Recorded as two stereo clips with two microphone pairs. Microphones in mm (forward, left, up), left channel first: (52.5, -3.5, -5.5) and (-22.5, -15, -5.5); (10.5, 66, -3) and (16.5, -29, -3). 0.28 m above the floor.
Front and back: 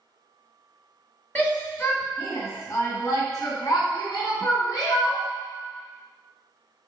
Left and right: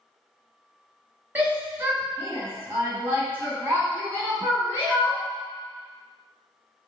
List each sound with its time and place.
1.4 s a shout: 40° right, 1.0 m; by 5.2 s 25° right, 3 m